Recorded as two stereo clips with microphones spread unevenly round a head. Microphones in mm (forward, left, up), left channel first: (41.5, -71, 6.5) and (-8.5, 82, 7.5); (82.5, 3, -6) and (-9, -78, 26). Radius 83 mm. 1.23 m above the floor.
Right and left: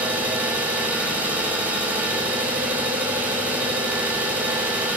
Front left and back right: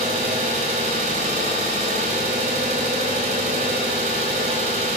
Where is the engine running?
170° right, 4 m.